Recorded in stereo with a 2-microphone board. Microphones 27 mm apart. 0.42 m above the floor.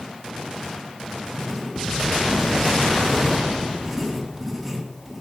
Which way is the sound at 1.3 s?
10° right (ahead or behind).